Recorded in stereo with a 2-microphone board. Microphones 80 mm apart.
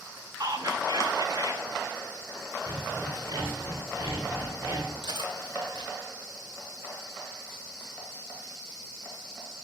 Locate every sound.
0.4 s whispering: 55° right (ahead or behind), 1.4 m
2.7 s sawing: 45° right (ahead or behind), 3.5 m
5.0 s cutlery clinking: 80° right, 2.0 m